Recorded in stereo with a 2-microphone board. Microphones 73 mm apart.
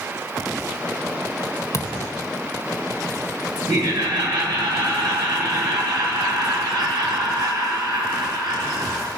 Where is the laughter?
85° right, 7 m.